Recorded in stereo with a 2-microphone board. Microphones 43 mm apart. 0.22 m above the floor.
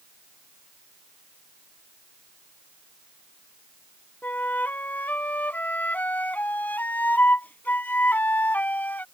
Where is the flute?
45° left (ahead or behind).